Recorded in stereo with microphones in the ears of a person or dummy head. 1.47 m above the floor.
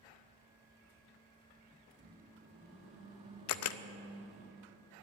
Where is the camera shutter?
70° left (ahead or behind), 0.5 m.